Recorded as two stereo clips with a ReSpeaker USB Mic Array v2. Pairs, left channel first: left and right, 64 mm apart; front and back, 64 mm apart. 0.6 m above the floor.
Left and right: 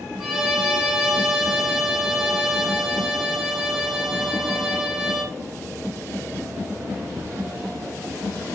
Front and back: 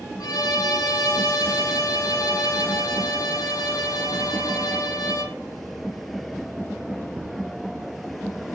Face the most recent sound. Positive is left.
turn(degrees=-5)